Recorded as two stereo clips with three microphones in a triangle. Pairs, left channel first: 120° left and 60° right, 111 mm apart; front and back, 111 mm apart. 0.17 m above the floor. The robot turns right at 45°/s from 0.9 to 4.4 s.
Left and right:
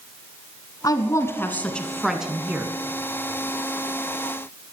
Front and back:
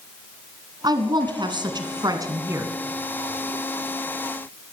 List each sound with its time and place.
0.8 s a woman speaking: 155° left, 1.6 m; by 2.8 s 120° right, 1.6 m